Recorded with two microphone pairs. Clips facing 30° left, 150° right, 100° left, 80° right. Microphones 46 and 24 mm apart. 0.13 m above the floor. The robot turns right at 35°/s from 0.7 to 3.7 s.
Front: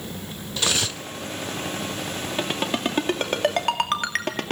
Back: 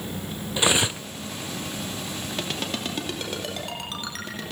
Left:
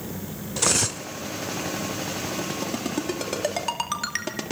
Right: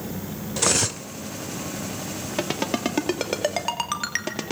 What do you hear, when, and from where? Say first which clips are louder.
0.6 s cutlery clinking: back 3 dB, right 1 dB; straight behind, 0.6 m; by 1.1 s 165° right, 0.6 m
2.4 s a ringtone: front 6 dB, right 3 dB; 45° right, 2.5 m; by 4.5 s 5° left, 2.5 m